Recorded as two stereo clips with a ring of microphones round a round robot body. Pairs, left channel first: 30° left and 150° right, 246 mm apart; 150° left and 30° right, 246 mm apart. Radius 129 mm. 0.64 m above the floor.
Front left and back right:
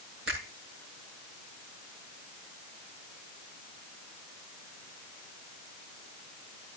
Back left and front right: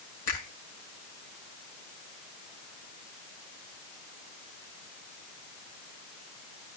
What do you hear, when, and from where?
0.3 s a finger snap: 160° left, 7 m